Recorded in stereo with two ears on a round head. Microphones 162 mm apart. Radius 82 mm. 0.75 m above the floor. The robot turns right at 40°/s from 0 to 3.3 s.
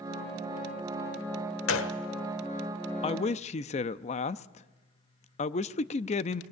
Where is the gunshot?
85° left, 1.4 m.